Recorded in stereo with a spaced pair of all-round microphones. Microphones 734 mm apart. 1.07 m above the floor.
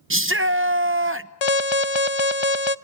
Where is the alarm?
40° left (ahead or behind), 0.6 m.